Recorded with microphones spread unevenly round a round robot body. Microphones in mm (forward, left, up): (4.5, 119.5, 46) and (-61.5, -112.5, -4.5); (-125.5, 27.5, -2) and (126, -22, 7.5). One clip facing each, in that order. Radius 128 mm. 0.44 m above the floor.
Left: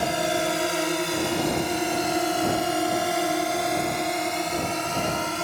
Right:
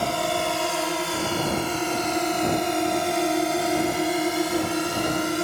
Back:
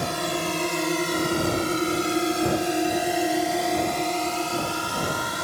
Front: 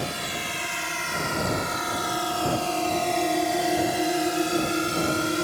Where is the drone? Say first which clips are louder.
Left 1 dB, back 6 dB; 150° left; by 5.4 s 55° right.